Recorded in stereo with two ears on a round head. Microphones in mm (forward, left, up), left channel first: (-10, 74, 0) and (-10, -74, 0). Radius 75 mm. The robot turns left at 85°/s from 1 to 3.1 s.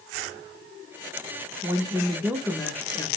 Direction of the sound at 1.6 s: 20° right (ahead or behind).